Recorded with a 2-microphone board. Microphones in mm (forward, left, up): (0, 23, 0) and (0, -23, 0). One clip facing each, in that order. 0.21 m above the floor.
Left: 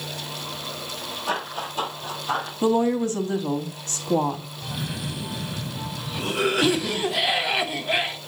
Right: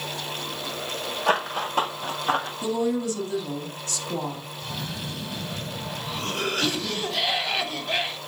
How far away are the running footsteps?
About 4.5 m.